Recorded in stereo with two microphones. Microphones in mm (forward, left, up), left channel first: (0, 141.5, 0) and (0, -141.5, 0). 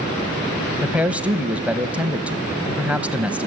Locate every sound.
0.8 s a man speaking: 5° right (ahead or behind), 1.0 m